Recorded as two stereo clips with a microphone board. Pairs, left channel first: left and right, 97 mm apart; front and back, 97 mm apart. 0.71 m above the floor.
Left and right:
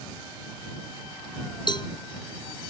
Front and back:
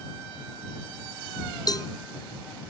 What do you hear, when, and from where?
1.7 s a cowbell: 50° left